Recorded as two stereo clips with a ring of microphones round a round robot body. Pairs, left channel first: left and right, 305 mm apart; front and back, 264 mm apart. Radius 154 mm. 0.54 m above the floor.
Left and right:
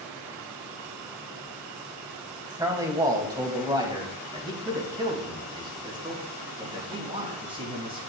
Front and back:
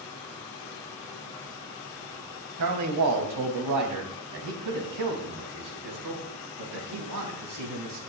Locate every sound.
2.6 s a man speaking: 170° right, 3 m; by 8.0 s 165° right, 6 m